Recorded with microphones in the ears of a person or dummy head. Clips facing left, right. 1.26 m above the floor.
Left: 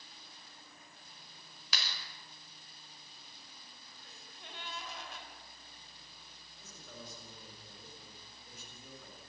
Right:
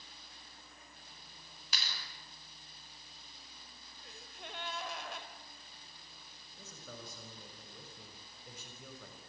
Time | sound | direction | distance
1.7 | a clap | 65° left (ahead or behind) | 5.5 m
4.0 | a gasp | 60° right (ahead or behind) | 3.5 m
6.6 | a man speaking | 70° right (ahead or behind) | 6 m